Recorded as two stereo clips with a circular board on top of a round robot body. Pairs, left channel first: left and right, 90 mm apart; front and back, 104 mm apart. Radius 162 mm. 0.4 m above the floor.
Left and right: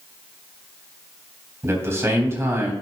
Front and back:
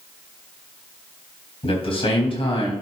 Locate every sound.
1.6 s a man speaking: 25° right, 3.5 m